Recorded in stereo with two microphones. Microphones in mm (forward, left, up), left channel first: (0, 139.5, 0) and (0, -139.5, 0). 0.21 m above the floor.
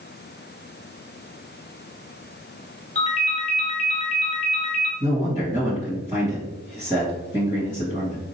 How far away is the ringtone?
About 1.0 m.